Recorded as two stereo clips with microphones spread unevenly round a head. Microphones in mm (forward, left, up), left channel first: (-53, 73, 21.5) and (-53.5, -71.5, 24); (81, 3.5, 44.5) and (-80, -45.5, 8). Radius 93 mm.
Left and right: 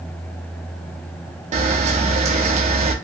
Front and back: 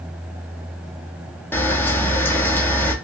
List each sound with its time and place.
1.5 s a camera shutter: 70° right, 0.5 m